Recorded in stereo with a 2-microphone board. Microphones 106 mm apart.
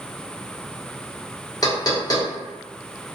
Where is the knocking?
40° left (ahead or behind), 0.8 m.